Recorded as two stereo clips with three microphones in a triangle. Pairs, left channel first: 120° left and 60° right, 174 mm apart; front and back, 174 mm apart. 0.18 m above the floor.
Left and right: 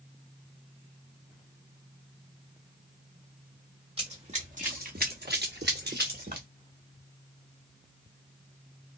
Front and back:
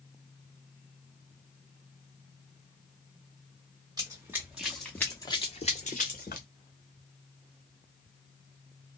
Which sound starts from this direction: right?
Running footsteps, at 4.0 s.